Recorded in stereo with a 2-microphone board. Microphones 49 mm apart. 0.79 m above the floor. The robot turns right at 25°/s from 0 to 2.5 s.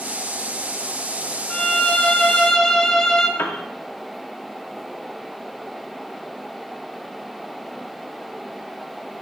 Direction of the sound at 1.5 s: 25° left (ahead or behind).